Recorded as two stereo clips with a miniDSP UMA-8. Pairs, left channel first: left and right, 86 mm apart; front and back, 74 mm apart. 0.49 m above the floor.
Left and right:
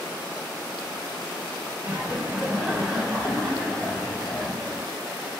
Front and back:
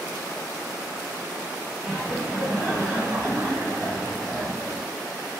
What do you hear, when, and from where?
1.8 s laughter: 110° right, 1.3 m; by 4.9 s 150° left, 1.7 m